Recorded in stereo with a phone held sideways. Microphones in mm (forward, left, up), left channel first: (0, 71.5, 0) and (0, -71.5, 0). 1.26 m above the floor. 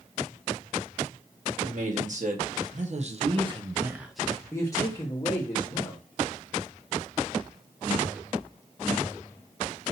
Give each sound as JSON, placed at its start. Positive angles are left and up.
{"t": 1.6, "sound": "a man speaking", "side_deg": -60, "distance_m": 1.5}